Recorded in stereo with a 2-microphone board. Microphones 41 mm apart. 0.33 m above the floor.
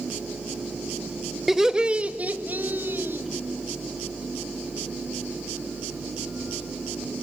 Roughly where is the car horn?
No car horn in this recording.